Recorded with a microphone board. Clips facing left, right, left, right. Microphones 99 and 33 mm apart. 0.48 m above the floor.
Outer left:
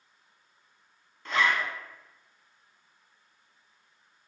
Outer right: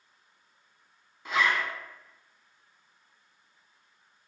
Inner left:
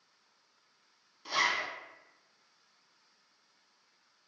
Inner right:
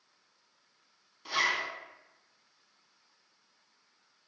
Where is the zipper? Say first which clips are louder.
Even, inner right 1 dB; 10° right (ahead or behind), 0.6 m.